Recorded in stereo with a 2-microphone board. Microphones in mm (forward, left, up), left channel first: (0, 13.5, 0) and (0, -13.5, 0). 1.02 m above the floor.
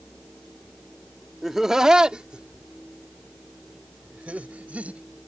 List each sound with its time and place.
1.4 s laughter: 10° right (ahead or behind); by 5.0 s 60° right (ahead or behind)